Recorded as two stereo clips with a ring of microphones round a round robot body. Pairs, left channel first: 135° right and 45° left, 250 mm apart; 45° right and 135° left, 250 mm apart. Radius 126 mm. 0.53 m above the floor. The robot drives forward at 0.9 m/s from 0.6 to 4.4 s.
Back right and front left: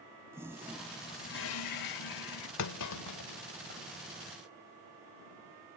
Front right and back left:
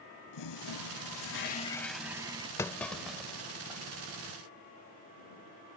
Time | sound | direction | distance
0.3 | a toilet flushing | 35° right | ?
2.6 | a clunk | 125° right | ?